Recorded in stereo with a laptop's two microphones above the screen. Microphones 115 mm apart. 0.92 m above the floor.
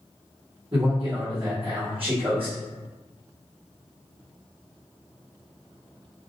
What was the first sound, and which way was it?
A man speaking, 50° right (ahead or behind).